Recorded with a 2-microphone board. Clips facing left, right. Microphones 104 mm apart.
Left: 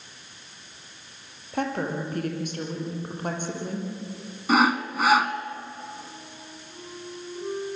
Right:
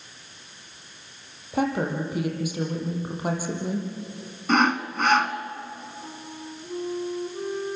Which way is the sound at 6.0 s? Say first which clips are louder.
Right 5 dB; 65° right (ahead or behind).